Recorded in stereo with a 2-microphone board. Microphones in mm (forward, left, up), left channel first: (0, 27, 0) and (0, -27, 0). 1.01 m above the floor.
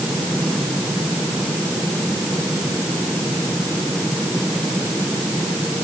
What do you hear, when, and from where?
Only background noise.